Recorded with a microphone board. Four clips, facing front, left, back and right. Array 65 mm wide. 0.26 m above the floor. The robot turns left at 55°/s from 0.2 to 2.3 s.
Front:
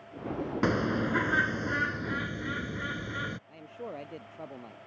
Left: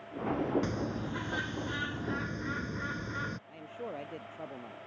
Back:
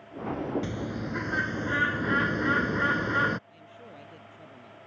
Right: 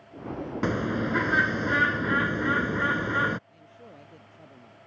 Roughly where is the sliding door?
No sliding door in this recording.